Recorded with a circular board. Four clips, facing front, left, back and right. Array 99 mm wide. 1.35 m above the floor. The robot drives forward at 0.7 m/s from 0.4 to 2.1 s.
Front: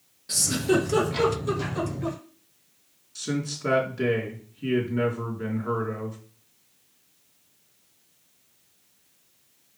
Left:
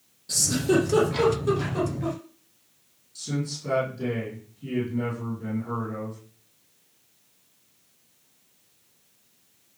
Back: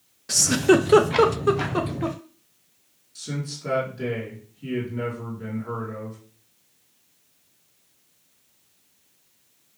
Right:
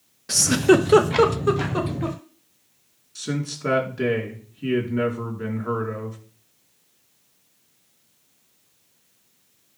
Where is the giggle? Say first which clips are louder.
Right 7 dB, back 6 dB; 120° right, 1.0 m; by 2.2 s 155° right, 1.9 m.